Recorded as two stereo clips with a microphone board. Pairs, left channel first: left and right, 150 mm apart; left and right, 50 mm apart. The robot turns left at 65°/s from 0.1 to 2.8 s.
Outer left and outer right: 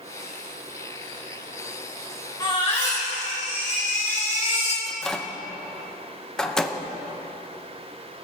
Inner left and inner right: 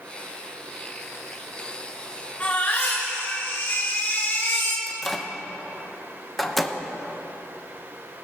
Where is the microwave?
5° left (ahead or behind), 0.7 m.